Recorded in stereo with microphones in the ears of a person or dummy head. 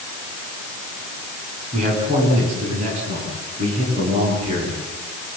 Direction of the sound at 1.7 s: 40° right (ahead or behind).